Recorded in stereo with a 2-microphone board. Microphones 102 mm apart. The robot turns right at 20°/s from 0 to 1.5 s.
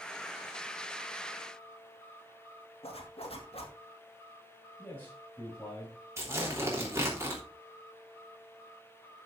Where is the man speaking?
20° left (ahead or behind), 5.5 m.